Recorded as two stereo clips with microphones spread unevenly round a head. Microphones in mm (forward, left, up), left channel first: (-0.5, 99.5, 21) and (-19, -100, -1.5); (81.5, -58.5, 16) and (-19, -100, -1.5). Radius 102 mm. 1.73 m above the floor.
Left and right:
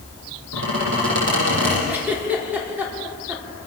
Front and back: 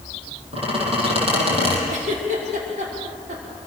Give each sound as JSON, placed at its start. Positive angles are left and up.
{"t": 0.5, "sound": "a squeak", "azimuth_deg": -125, "distance_m": 9.0}
{"t": 1.9, "sound": "a giggle", "azimuth_deg": 180, "distance_m": 5.5}